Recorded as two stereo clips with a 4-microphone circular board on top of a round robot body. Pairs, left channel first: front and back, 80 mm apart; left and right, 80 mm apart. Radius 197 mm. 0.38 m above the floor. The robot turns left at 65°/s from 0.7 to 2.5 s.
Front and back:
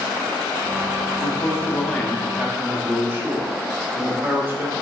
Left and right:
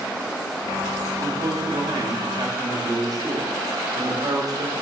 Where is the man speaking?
30° right, 1.7 m; by 4.7 s 115° right, 1.7 m.